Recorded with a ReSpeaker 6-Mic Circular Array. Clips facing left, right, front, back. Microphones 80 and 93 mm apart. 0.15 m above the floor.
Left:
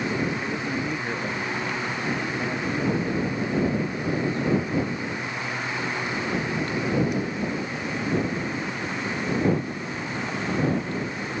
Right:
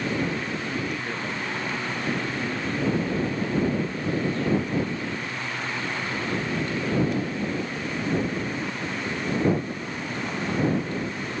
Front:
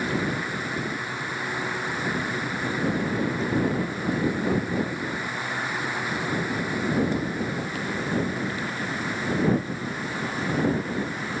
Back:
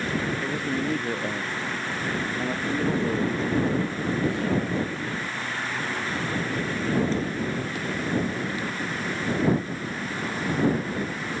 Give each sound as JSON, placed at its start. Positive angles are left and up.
{"t": 0.4, "sound": "a man speaking", "azimuth_deg": 160}